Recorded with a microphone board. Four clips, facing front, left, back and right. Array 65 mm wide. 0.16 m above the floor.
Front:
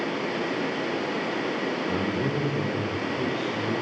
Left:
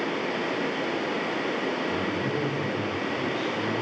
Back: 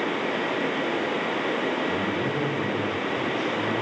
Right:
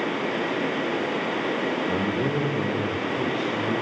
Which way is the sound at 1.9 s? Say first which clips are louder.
Right 3 dB, back 1 dB; 80° right.